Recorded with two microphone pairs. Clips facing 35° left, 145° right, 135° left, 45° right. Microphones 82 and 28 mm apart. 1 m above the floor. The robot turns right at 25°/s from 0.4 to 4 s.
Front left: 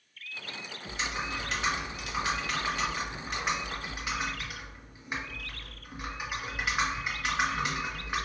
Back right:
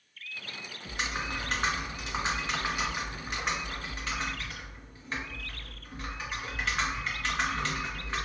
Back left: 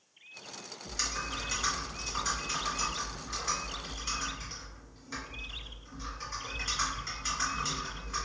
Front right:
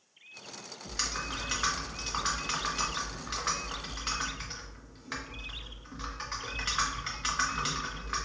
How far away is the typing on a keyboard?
About 0.9 m.